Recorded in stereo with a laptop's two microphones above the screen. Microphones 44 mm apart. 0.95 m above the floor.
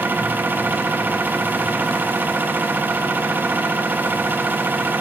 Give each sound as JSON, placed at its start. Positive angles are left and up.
{"t": 0.0, "sound": "a machine running", "side_deg": -45, "distance_m": 0.9}